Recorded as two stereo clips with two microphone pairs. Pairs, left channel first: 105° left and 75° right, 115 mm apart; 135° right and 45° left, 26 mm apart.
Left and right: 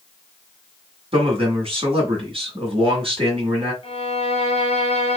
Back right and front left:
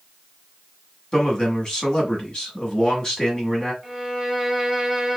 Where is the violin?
130° left, 1.7 m.